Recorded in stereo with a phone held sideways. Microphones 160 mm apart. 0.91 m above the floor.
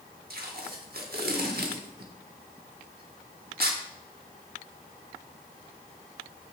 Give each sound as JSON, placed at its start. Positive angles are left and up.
{"t": 0.3, "sound": "tape being pulled", "side_deg": -75, "distance_m": 1.1}